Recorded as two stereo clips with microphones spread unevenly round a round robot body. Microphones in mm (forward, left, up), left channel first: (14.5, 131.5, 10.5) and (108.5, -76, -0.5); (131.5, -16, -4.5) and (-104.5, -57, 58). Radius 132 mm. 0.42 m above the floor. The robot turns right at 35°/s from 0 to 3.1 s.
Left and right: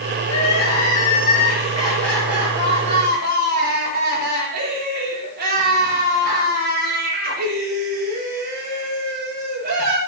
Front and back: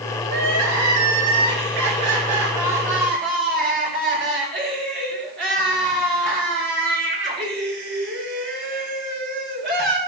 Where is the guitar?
No guitar in this recording.